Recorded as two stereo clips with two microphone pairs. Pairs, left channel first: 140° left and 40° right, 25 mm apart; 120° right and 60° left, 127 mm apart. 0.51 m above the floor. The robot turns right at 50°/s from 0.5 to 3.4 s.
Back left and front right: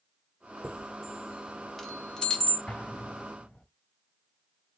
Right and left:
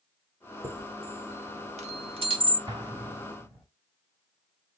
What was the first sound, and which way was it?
A chime, 5° left.